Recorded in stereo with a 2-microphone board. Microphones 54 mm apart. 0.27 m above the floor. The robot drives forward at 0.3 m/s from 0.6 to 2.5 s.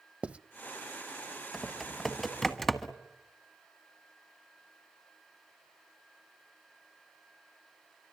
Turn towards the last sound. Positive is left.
turn(degrees=5)  # may be behind; listen again after turning